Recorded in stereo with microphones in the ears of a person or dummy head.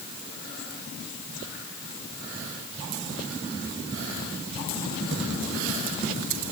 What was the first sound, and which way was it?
Only background noise.